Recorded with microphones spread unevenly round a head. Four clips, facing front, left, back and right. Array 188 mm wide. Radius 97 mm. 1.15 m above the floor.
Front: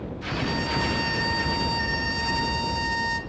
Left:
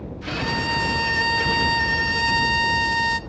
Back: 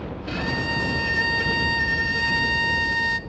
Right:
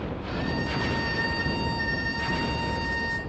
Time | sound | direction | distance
0.3 | a violin | 115° left | 0.7 m